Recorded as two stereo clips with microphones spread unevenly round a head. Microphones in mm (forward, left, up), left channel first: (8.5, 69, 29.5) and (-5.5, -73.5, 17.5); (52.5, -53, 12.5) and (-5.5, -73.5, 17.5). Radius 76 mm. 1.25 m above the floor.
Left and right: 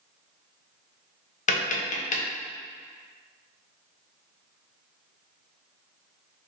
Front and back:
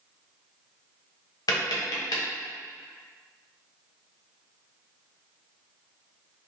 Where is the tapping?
45° left, 0.6 m.